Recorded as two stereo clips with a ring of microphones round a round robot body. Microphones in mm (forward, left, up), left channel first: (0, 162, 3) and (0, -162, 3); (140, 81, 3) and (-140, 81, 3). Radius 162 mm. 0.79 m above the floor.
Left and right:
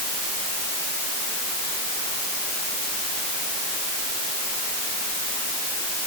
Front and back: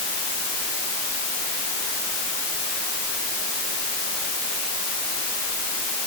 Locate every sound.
Only background noise.